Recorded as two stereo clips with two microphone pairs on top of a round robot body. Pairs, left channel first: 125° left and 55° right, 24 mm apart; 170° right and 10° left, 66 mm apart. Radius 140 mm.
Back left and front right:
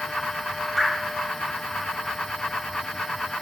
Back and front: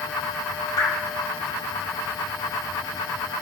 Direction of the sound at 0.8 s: 155° right.